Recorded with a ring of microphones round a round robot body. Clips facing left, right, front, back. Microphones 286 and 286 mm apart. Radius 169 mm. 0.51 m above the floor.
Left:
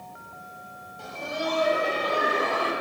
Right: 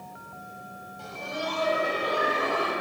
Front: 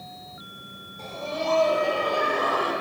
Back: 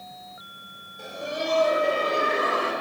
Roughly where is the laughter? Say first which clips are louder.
Left 3 dB, even; left.